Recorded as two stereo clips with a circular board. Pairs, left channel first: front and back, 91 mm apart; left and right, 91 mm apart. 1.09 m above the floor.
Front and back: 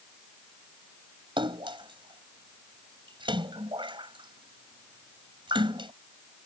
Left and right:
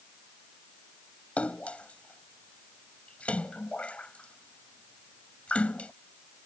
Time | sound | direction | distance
1.4 | a splash | 165° left | ?